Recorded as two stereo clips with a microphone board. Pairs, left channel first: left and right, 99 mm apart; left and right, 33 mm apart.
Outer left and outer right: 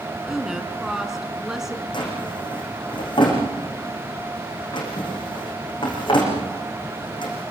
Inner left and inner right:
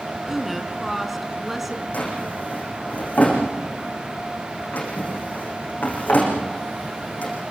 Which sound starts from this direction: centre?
A woman speaking, at 0.3 s.